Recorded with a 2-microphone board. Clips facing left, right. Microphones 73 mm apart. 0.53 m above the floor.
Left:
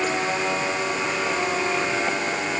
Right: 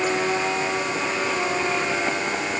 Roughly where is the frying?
No frying in this recording.